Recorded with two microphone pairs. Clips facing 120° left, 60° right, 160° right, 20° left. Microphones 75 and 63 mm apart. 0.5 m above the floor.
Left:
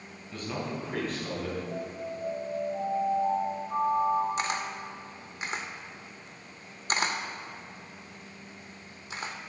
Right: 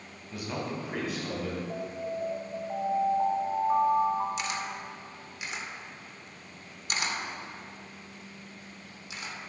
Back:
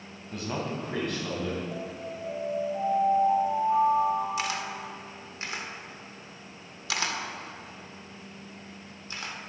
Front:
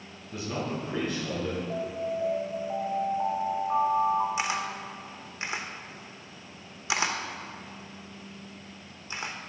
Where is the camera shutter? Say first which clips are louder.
Left 2 dB, front 1 dB; 85° left, 0.7 m.